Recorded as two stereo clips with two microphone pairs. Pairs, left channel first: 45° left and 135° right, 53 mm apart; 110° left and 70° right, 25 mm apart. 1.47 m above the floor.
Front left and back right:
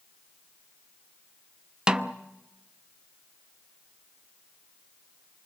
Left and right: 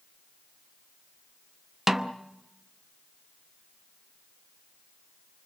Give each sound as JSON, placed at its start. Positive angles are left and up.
{"t": 1.9, "sound": "a snare drum", "azimuth_deg": -110, "distance_m": 0.8}